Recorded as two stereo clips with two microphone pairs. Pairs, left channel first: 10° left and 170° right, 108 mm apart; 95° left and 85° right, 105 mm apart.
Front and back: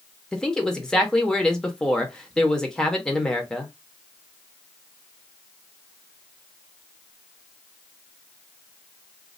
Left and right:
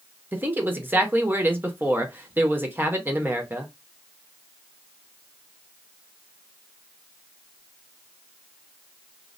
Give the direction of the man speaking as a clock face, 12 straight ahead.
2 o'clock.